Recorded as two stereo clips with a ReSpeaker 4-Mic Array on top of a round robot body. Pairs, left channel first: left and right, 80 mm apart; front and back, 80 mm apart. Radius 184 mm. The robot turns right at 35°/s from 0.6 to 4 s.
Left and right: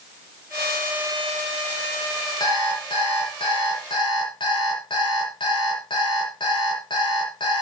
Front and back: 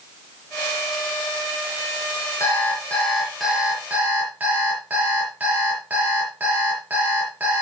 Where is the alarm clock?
55° left, 7 m; by 7.6 s 110° left, 7 m.